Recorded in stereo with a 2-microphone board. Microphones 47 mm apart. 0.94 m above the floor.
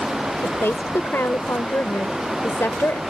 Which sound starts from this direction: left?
A woman speaking, at 0.4 s.